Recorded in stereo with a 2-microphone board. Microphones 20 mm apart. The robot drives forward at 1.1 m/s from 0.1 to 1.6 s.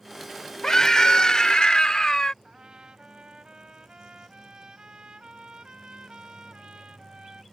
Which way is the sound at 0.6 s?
35° left (ahead or behind).